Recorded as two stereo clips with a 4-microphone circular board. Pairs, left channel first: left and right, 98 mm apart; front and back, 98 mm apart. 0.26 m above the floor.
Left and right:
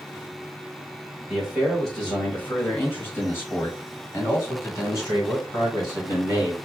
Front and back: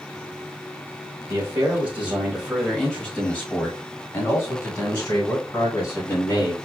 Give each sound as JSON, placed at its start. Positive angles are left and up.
{"t": 1.3, "sound": "a man speaking", "azimuth_deg": -170, "distance_m": 1.4}